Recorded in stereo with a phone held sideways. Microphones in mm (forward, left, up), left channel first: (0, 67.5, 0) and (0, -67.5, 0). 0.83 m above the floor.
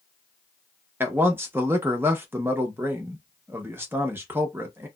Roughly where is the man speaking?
Centre.